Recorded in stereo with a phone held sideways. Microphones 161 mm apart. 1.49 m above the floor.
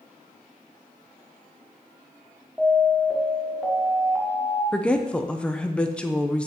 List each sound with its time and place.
2.6 s an alarm: 5° right (ahead or behind), 1.5 m
4.7 s a woman speaking: 5° left (ahead or behind), 0.6 m